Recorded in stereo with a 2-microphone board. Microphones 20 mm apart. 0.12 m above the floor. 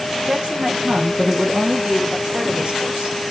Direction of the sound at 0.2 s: 65° right (ahead or behind).